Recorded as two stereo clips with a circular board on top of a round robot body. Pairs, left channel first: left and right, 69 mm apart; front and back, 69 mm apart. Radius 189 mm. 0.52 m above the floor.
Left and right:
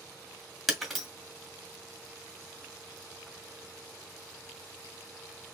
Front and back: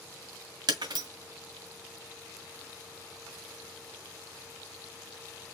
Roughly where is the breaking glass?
Behind.